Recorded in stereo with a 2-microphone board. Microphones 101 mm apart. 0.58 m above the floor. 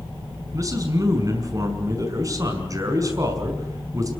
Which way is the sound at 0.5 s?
35° right (ahead or behind).